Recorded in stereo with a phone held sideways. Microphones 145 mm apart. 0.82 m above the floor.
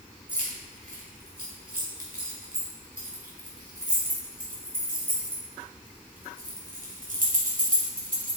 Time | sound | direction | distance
0.3 | keys jangling | 75° right (ahead or behind) | 2.5 m